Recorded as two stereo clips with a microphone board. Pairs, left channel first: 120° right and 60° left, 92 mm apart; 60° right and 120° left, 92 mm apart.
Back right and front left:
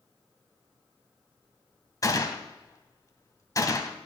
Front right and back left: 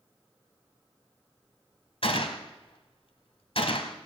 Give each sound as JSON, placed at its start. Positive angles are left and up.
{"t": 2.0, "sound": "a gunshot", "azimuth_deg": -70, "distance_m": 1.2}